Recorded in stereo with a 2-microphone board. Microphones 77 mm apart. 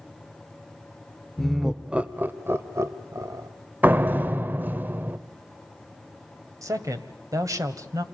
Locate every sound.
1.4 s laughter: 5° left (ahead or behind), 0.9 m; by 3.5 s 50° right (ahead or behind), 1.4 m
3.8 s a door slam: 25° right (ahead or behind), 0.7 m
6.6 s a woman speaking: 45° right (ahead or behind), 1.4 m